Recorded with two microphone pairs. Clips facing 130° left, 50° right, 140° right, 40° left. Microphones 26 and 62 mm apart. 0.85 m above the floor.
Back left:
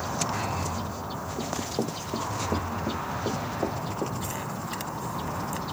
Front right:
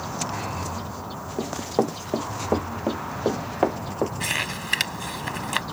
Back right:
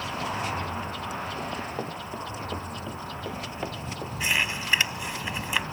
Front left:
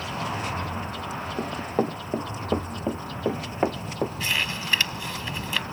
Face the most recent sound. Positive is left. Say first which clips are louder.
# front right 6 dB, back right 1 dB
turn(degrees=-70)